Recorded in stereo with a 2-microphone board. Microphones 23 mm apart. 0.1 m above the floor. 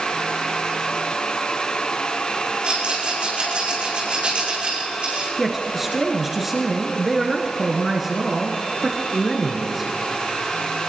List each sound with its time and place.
2.6 s a rattle: 50° right (ahead or behind), 5.5 m
5.4 s a man speaking: 10° right (ahead or behind), 1.4 m